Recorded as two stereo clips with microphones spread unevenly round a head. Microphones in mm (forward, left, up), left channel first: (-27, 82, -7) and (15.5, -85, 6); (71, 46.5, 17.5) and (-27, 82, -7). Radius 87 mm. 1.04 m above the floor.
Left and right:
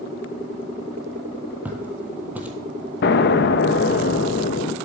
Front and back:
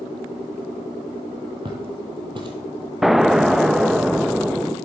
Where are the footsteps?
145° right, 1.3 m.